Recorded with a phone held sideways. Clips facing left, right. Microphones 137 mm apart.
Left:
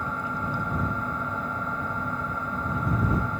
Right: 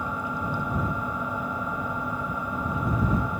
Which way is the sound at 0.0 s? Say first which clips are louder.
Right 1 dB; 10° right (ahead or behind).